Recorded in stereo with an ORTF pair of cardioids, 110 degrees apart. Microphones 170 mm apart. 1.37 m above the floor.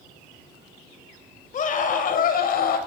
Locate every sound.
1.5 s a scream: 50° left, 6 m; by 2.8 s 60° left, 6.5 m